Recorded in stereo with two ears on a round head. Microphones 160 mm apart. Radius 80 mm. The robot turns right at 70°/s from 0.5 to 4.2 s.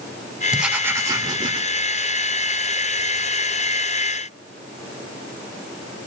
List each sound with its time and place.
0.5 s writing: 5° right (ahead or behind), 0.8 m; by 1.6 s 25° right (ahead or behind), 0.8 m